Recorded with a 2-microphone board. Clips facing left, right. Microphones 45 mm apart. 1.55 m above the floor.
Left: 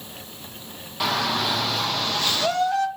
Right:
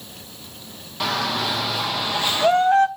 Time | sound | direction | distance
1.0 | a shout | 5° left (ahead or behind) | 1.8 m